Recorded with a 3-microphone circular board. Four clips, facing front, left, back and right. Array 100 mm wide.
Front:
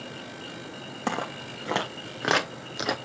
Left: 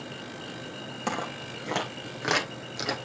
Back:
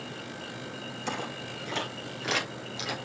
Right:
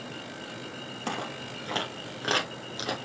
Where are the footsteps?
10° left, 2.5 m; by 3.0 s straight ahead, 1.7 m.